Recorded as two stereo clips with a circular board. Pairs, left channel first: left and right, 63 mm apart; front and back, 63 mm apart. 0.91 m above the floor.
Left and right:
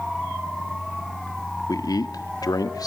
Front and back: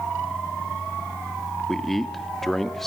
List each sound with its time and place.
1.7 s a man speaking: 85° left, 1.5 m